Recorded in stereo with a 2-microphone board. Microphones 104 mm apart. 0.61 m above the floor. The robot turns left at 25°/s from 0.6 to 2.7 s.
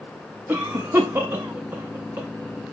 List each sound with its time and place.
0.5 s a cough: 15° right (ahead or behind), 0.5 m; by 2.3 s 20° right (ahead or behind), 0.5 m